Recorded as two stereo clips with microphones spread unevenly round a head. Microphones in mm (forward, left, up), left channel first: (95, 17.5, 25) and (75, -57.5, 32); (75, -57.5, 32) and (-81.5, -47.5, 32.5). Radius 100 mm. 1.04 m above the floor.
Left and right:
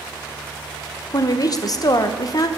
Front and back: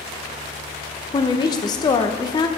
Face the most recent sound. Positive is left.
turn(degrees=60)